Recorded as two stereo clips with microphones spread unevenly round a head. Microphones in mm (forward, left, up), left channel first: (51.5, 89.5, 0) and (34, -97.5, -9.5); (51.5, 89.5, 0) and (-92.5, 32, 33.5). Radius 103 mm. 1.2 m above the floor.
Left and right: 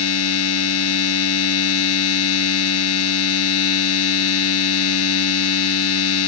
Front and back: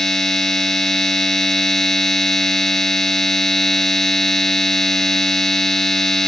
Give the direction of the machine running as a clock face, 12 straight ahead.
8 o'clock.